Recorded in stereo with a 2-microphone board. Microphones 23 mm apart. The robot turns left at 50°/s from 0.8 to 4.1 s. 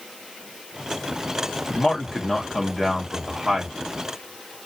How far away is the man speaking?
About 1.5 m.